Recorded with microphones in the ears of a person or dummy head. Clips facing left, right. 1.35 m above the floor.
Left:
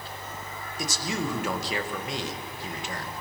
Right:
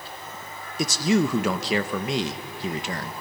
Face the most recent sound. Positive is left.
turn(degrees=-60)  # may be behind; listen again after turning